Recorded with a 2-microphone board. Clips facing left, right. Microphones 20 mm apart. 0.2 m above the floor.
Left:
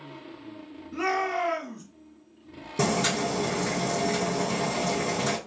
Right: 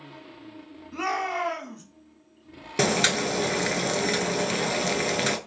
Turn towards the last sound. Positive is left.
turn(degrees=-55)  # may be behind; listen again after turning